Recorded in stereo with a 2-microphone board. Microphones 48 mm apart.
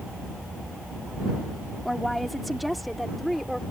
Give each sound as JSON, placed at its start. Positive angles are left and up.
{"t": 1.9, "sound": "a woman speaking", "side_deg": 0}